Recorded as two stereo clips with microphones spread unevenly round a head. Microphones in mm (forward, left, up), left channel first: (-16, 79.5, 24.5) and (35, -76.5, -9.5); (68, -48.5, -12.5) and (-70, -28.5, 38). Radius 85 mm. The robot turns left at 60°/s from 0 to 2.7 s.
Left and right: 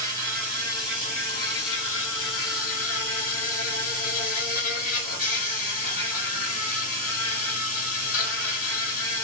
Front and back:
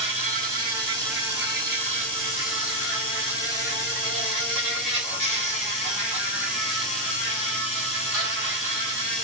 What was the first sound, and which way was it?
An insect, 135° right.